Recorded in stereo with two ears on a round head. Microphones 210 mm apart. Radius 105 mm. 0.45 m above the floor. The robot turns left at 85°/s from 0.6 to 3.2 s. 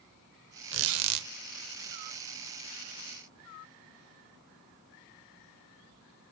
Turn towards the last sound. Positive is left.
turn(degrees=95)